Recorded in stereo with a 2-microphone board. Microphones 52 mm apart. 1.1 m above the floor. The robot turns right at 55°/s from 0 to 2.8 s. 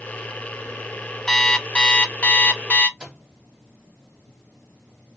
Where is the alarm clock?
5° left (ahead or behind), 0.6 m; by 2.9 s 25° left (ahead or behind), 0.6 m.